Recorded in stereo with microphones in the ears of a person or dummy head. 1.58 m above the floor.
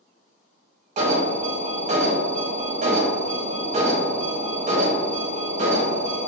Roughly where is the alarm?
Right.